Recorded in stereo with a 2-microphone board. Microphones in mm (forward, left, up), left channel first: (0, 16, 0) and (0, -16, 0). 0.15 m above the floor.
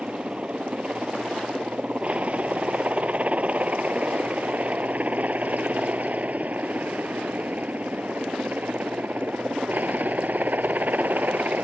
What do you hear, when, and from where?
0.0 s a helicopter: 40° right (ahead or behind); by 11.7 s 60° right (ahead or behind)